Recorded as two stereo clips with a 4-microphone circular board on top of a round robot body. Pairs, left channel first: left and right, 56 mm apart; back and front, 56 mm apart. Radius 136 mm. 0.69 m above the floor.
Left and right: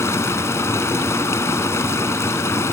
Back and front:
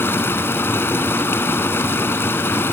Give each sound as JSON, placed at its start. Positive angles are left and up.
{"t": 0.0, "sound": "running water", "azimuth_deg": 130}